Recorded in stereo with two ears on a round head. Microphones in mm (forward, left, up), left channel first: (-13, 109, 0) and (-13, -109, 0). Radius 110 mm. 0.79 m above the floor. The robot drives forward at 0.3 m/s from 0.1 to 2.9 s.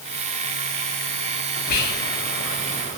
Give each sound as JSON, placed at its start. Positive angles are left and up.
{"t": 1.7, "sound": "whispering", "side_deg": 40, "distance_m": 0.7}